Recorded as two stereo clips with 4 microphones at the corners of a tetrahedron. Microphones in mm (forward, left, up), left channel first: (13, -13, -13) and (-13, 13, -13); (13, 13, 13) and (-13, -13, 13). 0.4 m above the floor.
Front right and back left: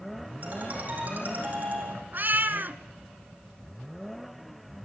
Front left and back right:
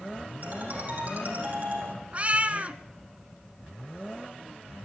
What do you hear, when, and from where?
0.4 s a ringtone: straight behind, 7 m
2.1 s a cat meowing: 165° left, 1.2 m